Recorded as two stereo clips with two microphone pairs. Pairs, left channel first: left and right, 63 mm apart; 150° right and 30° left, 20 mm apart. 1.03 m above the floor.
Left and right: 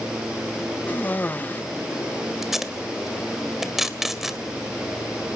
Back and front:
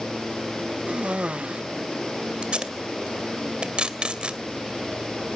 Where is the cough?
25° left, 0.6 m.